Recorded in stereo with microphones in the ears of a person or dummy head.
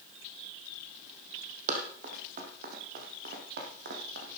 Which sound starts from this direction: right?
Running footsteps, at 1.7 s.